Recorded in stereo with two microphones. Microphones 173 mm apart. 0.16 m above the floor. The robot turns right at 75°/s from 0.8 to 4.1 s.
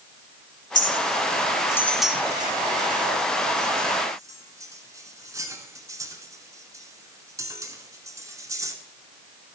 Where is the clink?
50° left (ahead or behind), 0.9 m; by 8.7 s 15° right (ahead or behind), 0.9 m.